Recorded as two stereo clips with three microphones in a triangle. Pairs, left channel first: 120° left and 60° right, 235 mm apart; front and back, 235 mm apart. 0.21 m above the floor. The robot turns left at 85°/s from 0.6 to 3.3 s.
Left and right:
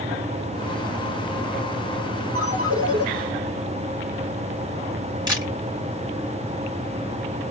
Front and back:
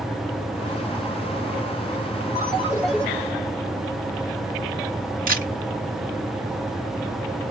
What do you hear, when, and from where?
2.4 s a ringtone: 45° right, 2 m; by 3.0 s 105° right, 2 m
5.3 s a camera shutter: 130° right, 3.5 m